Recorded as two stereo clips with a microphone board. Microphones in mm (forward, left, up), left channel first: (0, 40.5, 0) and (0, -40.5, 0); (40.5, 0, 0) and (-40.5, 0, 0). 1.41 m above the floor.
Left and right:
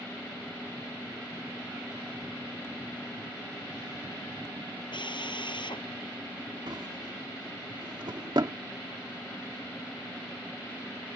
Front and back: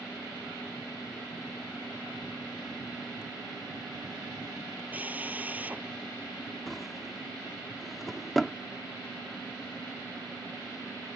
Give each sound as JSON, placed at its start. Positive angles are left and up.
{"t": 4.9, "sound": "a drill", "azimuth_deg": 110}
{"t": 6.7, "sound": "a drawer", "azimuth_deg": -90}